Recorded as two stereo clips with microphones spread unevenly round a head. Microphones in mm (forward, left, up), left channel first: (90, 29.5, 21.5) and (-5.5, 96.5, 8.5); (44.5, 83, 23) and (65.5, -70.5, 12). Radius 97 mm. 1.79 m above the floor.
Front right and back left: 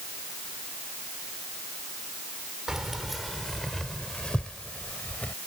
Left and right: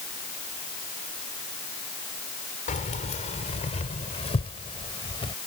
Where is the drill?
I don't hear a drill.